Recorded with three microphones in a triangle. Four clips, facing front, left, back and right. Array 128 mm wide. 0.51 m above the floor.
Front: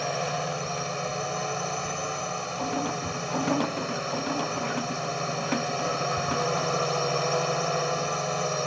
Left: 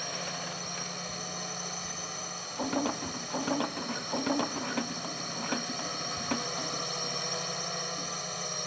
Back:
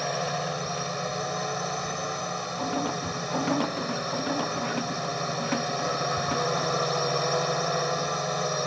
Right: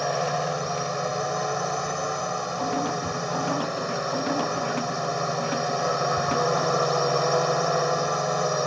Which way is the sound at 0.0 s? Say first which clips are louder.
Right 14 dB, even; 85° right.